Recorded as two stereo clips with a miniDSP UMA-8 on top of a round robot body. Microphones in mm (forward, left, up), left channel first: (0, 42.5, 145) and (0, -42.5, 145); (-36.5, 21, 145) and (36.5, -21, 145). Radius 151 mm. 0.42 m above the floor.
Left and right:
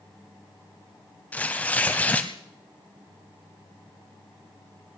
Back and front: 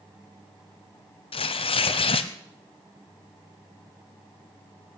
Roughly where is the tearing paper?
Behind.